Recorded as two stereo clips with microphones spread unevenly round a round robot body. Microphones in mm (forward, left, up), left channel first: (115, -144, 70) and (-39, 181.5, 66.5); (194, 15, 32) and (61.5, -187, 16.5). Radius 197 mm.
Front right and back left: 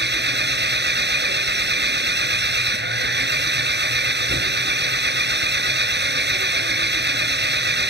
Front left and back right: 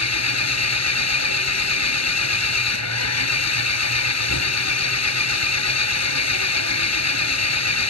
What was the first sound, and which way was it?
An engine running, 55° left.